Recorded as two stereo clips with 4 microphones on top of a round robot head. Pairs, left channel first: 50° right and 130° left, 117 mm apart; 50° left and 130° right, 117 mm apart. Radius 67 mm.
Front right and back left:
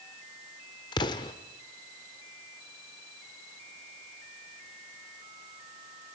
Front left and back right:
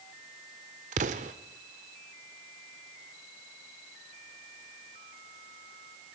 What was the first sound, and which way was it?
An explosion, 105° right.